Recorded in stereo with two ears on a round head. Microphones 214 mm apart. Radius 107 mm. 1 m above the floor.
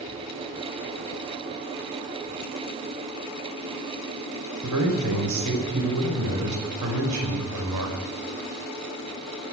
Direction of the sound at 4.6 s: 85° right.